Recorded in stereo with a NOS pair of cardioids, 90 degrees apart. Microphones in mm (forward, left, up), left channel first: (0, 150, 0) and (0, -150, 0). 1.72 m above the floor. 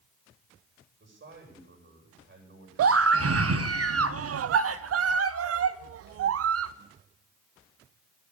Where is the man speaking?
40° right, 8.5 m.